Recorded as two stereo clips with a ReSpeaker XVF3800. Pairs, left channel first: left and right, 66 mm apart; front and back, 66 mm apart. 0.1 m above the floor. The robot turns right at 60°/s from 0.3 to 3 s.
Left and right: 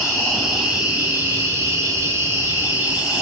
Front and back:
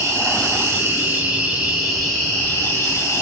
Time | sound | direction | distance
0.0 | an insect | 175° left | 1.2 m